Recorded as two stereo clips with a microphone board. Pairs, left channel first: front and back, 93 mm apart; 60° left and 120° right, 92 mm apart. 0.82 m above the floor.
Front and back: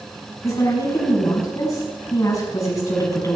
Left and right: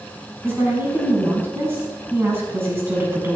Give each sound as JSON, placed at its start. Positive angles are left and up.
{"t": 0.4, "sound": "a woman speaking", "azimuth_deg": -55, "distance_m": 7.0}